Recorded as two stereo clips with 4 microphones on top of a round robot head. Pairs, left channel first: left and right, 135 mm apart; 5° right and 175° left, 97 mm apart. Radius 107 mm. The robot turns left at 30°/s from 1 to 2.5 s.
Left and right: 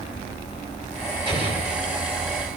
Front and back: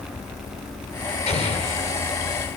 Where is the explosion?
30° right, 9.5 m; by 1.9 s 45° right, 9.5 m.